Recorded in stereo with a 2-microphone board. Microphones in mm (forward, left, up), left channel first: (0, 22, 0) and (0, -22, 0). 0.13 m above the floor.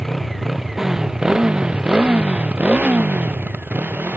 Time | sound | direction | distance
0.0 | a motorcycle | centre (ahead or behind) | ?